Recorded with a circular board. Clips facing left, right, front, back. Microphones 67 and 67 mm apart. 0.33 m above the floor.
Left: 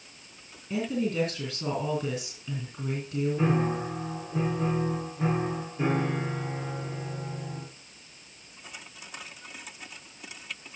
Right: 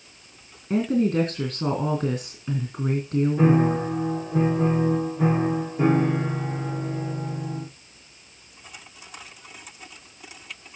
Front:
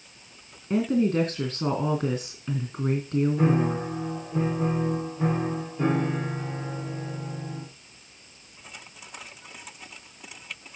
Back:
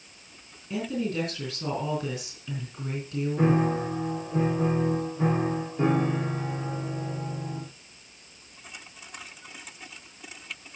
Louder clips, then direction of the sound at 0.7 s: Right 7 dB, front 7 dB; 50° right.